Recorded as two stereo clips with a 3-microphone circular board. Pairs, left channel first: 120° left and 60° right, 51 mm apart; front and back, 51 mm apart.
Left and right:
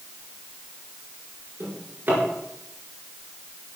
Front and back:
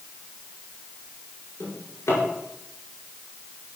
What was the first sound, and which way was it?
A drawer, 15° right.